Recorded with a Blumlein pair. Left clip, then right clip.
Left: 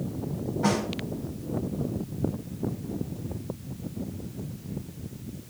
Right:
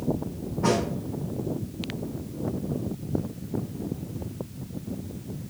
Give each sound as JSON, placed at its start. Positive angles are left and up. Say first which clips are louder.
{"t": 0.6, "sound": "a snare drum", "louder": "right 3 dB", "azimuth_deg": 70, "distance_m": 5.0}